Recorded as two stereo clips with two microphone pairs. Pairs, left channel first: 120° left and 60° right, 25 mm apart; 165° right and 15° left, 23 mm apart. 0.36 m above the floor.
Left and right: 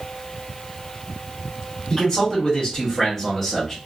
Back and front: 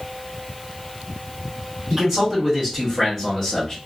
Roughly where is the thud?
I don't hear a thud.